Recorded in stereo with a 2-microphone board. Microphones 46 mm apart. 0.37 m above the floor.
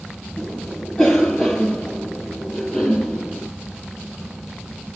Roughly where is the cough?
Centre.